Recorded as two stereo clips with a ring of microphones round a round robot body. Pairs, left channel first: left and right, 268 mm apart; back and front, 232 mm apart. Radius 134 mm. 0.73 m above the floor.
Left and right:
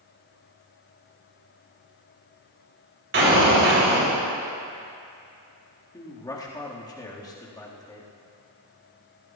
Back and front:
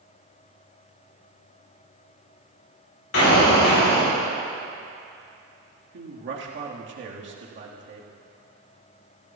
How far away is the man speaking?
About 1.5 m.